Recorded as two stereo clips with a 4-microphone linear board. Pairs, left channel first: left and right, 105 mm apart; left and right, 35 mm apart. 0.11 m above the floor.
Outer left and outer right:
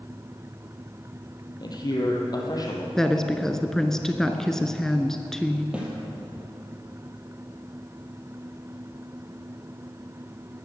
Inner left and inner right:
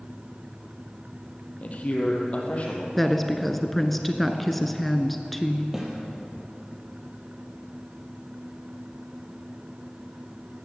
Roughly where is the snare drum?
Centre.